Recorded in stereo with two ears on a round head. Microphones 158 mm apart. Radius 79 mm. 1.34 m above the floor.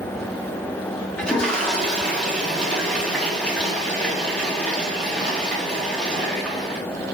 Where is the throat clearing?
No throat clearing in this recording.